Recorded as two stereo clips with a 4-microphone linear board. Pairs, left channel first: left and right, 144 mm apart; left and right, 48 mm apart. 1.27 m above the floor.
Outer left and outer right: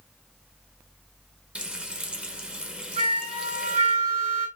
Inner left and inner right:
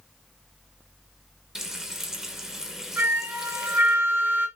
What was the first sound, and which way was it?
Frying, 5° right (ahead or behind).